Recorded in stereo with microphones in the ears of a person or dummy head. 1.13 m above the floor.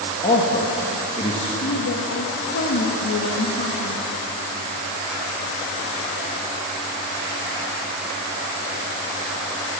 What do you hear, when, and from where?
0.2 s a man speaking: 30° left (ahead or behind), 1.8 m
1.6 s a woman speaking: 70° left (ahead or behind), 1.6 m